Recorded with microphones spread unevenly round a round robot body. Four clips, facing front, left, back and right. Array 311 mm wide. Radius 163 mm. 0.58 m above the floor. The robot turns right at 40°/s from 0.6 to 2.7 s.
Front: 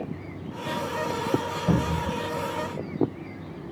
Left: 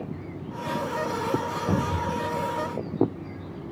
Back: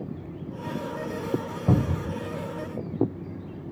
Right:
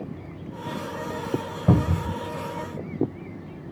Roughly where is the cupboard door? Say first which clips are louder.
Right 5 dB, back 1 dB; right.